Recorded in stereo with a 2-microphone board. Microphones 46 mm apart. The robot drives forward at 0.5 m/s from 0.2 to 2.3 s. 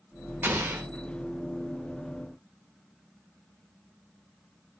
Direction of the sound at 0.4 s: 45° right (ahead or behind).